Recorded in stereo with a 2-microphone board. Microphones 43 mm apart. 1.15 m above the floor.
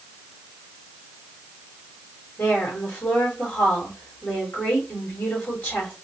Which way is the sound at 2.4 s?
45° left (ahead or behind).